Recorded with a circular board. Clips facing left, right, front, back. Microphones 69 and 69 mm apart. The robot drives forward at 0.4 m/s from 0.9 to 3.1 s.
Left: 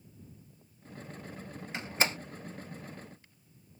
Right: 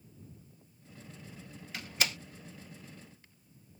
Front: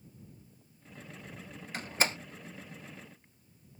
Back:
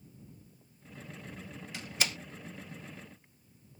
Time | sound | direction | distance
1.7 | a door slam | 35° left | ?